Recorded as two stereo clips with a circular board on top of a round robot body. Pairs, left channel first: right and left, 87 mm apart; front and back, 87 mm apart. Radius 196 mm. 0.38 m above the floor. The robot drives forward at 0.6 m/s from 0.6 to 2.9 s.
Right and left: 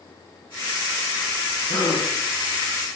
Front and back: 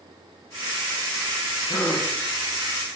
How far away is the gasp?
About 1.7 m.